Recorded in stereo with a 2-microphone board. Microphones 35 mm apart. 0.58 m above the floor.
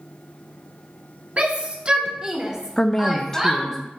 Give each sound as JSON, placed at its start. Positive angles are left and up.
{"t": 1.4, "sound": "a shout", "side_deg": -40, "distance_m": 0.8}
{"t": 2.8, "sound": "a woman speaking", "side_deg": 20, "distance_m": 0.6}